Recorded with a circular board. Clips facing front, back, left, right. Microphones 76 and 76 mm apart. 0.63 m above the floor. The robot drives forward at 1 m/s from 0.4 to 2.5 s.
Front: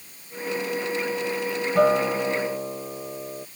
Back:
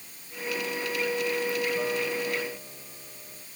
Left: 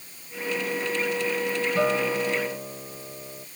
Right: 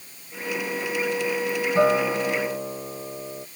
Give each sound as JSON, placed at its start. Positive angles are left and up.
{"t": 1.8, "sound": "a guitar", "azimuth_deg": -25}